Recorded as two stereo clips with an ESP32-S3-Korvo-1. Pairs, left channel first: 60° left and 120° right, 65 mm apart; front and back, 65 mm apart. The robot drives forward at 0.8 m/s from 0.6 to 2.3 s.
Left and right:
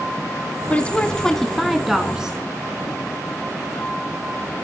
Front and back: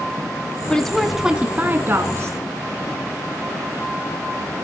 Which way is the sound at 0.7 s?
45° left.